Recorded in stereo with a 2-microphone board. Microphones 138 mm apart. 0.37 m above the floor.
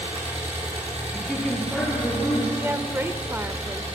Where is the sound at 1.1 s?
5° left (ahead or behind), 7 m.